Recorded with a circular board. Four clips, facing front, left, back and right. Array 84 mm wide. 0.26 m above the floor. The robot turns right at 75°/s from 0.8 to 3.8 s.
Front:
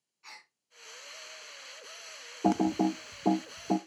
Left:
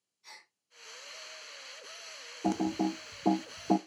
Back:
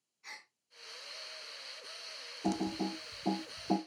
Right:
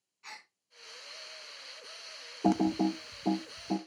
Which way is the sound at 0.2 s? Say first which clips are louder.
Right 5 dB, even; 70° right.